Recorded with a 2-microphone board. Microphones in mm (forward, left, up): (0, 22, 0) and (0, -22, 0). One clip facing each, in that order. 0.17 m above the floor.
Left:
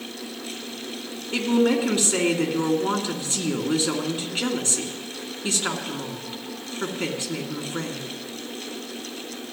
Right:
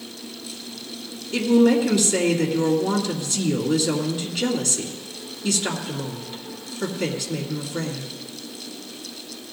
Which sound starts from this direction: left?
A woman speaking, at 1.3 s.